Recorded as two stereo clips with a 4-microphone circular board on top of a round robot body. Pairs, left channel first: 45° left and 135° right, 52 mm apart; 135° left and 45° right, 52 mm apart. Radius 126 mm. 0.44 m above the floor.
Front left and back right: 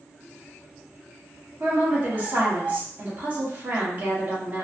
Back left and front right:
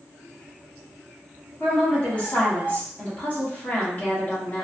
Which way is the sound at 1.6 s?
175° right.